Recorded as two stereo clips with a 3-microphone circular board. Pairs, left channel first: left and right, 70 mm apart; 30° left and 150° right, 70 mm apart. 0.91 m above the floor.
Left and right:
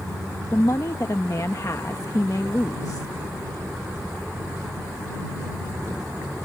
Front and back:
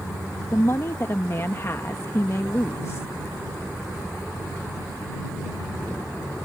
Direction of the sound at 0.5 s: 70° left.